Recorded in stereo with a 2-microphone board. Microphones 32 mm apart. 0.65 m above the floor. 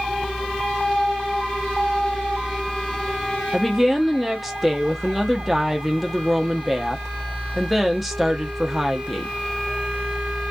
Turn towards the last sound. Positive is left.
turn(degrees=-5)  # may be behind; listen again after turning